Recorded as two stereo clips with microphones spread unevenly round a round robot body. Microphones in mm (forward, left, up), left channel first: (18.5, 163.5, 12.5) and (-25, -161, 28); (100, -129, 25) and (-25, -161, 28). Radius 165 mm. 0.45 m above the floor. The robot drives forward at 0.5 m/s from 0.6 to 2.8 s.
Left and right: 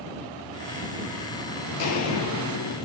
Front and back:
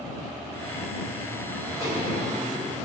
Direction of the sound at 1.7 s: 120° left.